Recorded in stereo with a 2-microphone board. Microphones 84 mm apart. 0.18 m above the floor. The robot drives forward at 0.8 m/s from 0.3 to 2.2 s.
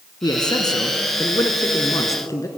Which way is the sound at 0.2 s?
50° left (ahead or behind).